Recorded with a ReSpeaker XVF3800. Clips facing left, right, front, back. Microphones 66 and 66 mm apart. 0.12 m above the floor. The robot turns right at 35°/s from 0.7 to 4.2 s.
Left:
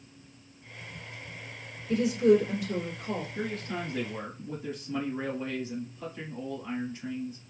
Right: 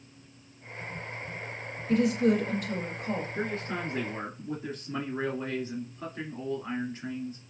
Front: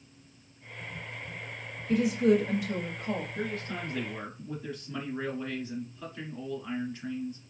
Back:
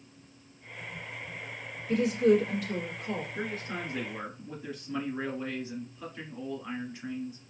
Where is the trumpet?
No trumpet in this recording.